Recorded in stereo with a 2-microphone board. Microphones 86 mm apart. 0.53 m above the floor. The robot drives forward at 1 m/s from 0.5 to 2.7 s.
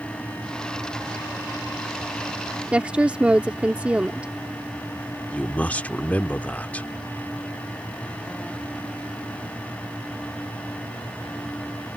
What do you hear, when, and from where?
2.7 s a woman speaking: 15° right (ahead or behind)
5.3 s a man speaking: 15° left (ahead or behind)